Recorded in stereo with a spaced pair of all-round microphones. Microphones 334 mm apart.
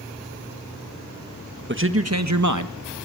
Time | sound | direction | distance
1.7 | a man speaking | 35° right (ahead or behind) | 1.5 m